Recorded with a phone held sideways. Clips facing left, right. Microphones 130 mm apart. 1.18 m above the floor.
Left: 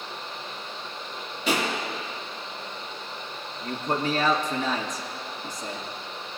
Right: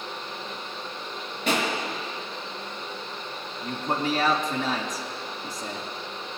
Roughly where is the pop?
Right.